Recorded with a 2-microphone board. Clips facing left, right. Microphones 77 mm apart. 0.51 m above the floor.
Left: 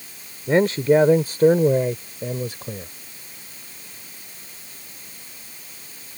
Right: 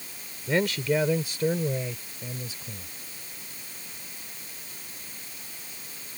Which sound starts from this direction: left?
A man speaking, at 0.5 s.